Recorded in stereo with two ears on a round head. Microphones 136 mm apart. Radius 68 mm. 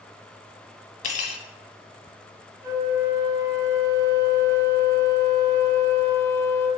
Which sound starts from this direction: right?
A flute, at 2.6 s.